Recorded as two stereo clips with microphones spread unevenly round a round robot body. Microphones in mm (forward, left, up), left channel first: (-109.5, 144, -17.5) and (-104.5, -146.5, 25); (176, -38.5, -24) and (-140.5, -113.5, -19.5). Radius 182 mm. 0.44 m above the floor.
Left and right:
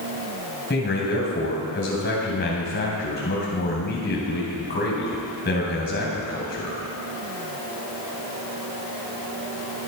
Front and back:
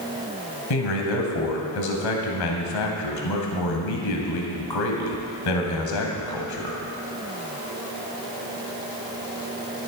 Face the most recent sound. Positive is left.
turn(degrees=30)